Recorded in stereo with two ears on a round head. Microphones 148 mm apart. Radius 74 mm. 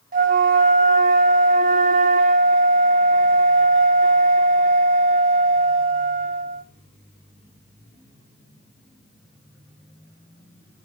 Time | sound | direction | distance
0.1 | a flute | 55° right (ahead or behind) | 0.9 m